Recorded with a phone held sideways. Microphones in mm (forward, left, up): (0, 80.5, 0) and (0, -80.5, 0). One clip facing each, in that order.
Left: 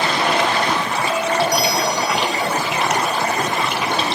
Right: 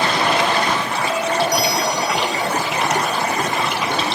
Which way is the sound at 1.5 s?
45° right (ahead or behind).